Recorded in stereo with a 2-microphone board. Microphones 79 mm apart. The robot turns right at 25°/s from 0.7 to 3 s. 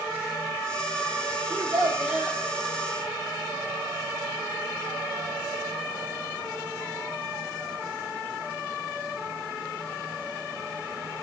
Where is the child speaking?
25° right (ahead or behind), 2.5 m; by 2.4 s 5° right (ahead or behind), 2.5 m.